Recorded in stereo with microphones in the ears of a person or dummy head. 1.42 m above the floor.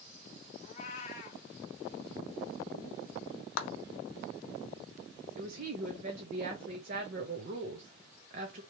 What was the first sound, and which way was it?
A cat meowing, 45° left (ahead or behind).